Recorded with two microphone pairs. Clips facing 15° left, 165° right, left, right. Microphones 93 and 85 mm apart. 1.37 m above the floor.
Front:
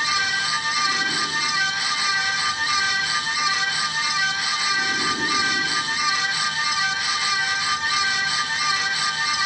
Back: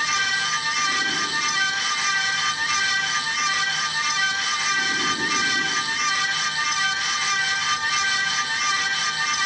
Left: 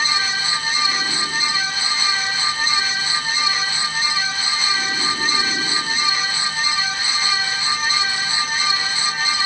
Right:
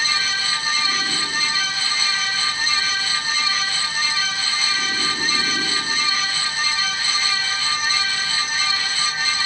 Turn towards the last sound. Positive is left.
No sound to turn to.